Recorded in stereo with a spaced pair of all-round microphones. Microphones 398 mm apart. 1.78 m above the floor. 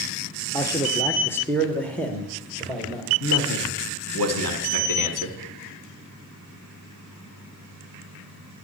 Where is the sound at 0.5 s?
10° left (ahead or behind), 1.0 m; by 3.1 s centre (ahead or behind), 2 m.